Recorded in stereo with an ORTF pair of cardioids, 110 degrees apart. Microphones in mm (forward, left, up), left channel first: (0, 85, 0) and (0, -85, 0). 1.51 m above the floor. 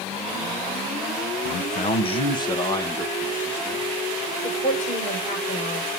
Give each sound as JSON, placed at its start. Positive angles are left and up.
{"t": 1.4, "sound": "a man speaking", "azimuth_deg": 60, "distance_m": 1.1}
{"t": 4.4, "sound": "a woman speaking", "azimuth_deg": 50, "distance_m": 5.5}